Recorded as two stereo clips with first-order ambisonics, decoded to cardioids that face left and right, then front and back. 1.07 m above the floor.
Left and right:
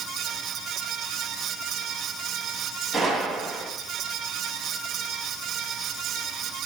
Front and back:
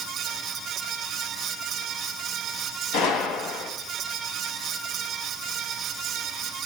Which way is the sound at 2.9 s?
Straight ahead.